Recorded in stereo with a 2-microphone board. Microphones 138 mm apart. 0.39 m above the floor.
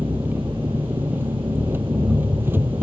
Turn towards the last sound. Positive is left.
turn(degrees=-15)  # may be behind; listen again after turning